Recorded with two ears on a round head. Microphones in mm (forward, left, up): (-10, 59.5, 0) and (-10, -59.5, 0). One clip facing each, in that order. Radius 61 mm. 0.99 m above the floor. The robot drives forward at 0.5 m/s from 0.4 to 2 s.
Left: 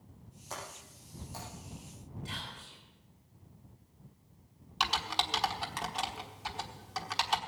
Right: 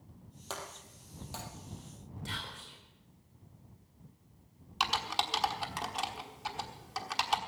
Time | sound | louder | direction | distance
0.5 | breaking glass | right 1 dB | 75° right (ahead or behind) | 4 m
2.2 | whispering | right 2 dB | 60° right (ahead or behind) | 3.5 m
4.8 | typing on a keyboard | even | centre (ahead or behind) | 1.2 m